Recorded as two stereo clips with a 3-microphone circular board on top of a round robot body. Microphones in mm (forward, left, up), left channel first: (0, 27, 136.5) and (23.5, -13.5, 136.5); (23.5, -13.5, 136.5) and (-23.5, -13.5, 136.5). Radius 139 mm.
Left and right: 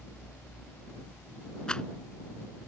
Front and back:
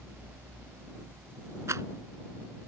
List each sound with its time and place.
1.7 s a rattle: 165° right